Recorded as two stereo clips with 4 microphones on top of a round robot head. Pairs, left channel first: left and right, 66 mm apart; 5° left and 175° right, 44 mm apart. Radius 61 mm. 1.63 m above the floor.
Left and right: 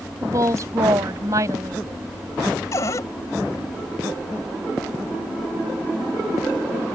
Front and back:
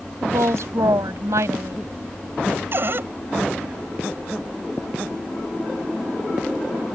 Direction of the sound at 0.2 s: 140° right.